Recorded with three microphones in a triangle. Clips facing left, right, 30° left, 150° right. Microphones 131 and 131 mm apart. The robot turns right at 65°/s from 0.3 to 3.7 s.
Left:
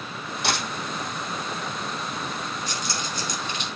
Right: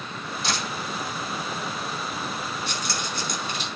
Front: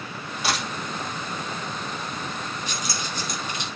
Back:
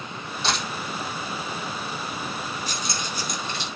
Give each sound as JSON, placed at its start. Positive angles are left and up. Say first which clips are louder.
{"t": 0.4, "sound": "a dropped coin", "louder": "left 3 dB, even", "azimuth_deg": 110, "distance_m": 4.0}
{"t": 2.7, "sound": "keys jangling", "louder": "even, even", "azimuth_deg": -100, "distance_m": 3.5}